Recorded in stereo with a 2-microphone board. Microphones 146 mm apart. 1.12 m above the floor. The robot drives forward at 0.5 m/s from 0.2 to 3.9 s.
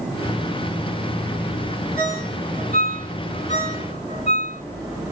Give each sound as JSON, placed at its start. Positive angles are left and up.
{"t": 2.0, "sound": "a ringtone", "side_deg": 65, "distance_m": 2.5}